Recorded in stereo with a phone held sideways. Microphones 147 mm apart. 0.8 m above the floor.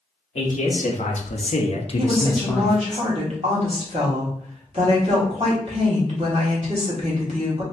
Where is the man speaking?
50° left (ahead or behind), 1.2 m; by 3.0 s centre (ahead or behind), 0.7 m.